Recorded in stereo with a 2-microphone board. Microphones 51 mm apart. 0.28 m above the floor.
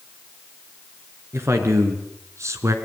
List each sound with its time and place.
1.3 s a man speaking: 55° right (ahead or behind), 4 m; by 2.8 s 70° right (ahead or behind), 3 m